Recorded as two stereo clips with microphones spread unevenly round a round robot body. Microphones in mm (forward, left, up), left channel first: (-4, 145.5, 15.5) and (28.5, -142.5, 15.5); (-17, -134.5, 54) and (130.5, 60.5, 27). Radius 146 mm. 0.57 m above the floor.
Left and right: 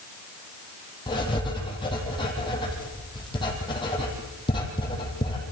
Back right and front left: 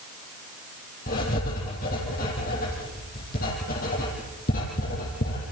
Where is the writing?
170° left, 4.5 m.